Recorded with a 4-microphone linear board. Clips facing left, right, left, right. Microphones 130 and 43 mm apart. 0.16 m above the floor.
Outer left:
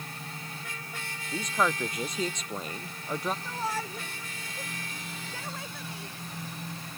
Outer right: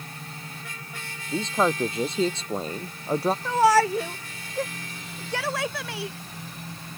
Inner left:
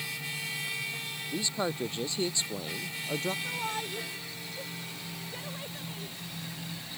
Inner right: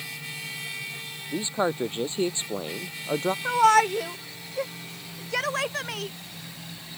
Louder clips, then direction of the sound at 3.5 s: Outer right 15 dB, inner right 16 dB; 70° right (ahead or behind).